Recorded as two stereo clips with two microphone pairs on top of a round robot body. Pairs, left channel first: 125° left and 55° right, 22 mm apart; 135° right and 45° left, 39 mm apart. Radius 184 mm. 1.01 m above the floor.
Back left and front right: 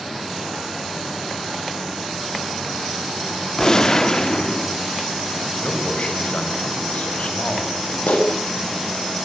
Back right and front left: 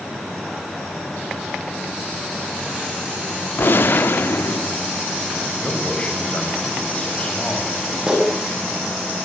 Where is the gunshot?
170° right, 1.9 m.